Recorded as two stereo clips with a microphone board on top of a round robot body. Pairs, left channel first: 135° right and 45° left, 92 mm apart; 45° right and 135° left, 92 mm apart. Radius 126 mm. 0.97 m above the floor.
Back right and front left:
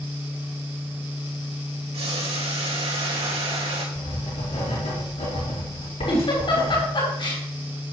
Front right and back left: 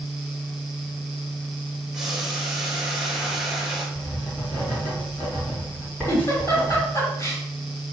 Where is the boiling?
50° left, 3 m.